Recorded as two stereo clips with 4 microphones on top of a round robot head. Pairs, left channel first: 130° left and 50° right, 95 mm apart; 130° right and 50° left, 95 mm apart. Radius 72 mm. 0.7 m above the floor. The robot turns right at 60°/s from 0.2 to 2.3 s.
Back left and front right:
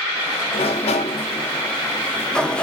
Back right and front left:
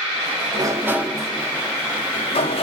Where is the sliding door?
100° left, 0.5 m; by 2.6 s 150° right, 0.5 m.